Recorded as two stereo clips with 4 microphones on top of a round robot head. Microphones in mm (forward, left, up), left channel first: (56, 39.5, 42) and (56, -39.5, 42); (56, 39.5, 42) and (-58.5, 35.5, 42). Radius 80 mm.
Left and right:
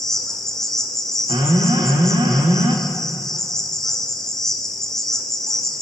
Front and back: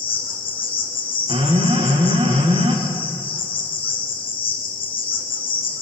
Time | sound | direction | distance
0.0 | an insect | 5° left | 1.8 m
1.3 | an alarm | 130° right | 1.2 m